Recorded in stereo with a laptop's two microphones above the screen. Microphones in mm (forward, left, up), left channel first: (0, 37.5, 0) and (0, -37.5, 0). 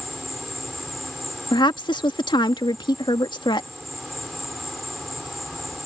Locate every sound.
0.0 s an insect: centre (ahead or behind)
1.5 s a woman speaking: 75° left (ahead or behind)